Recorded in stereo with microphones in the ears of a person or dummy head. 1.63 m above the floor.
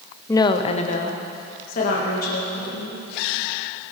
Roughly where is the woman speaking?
Centre.